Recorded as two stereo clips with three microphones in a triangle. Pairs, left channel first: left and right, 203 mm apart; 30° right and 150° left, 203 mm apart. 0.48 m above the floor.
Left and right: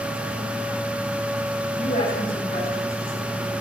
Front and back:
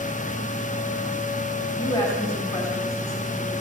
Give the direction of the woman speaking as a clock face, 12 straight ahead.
11 o'clock.